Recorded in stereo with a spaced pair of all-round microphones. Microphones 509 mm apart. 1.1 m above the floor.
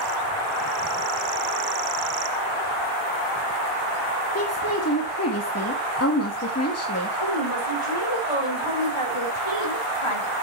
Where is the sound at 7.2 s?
70° left (ahead or behind), 5 m.